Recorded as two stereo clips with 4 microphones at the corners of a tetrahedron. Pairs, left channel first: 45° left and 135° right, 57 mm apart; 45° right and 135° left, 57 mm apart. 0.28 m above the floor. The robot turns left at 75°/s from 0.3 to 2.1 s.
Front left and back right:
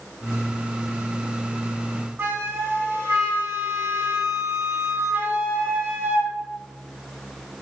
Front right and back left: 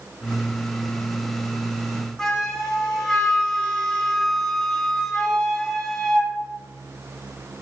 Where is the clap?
I don't hear a clap.